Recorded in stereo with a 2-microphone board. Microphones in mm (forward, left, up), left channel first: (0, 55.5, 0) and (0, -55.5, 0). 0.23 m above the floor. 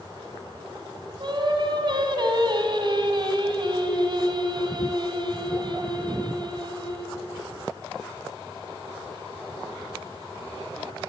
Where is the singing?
50° right (ahead or behind), 1.4 m.